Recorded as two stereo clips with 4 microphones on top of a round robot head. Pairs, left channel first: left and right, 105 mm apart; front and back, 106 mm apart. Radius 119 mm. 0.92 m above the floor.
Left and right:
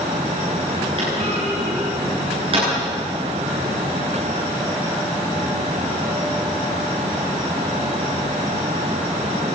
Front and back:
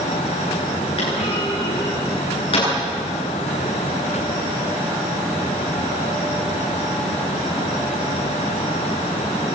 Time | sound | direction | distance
1.0 | a clunk | 45° right | 9.5 m